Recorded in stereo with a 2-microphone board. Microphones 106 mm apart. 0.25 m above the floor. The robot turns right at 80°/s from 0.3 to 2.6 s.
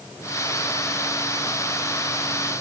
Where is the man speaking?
No man speaking in this recording.